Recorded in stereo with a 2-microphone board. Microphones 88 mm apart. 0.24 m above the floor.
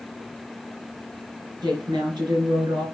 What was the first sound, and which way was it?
A woman speaking, 60° right (ahead or behind).